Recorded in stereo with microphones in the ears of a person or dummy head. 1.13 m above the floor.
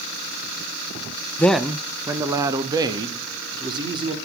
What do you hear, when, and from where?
1.4 s a man speaking: 10° left (ahead or behind), 0.5 m; by 4.2 s 25° right (ahead or behind), 3 m